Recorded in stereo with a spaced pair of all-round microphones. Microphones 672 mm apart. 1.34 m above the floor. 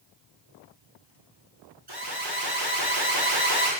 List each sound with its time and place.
1.9 s an alarm: 35° right (ahead or behind), 6 m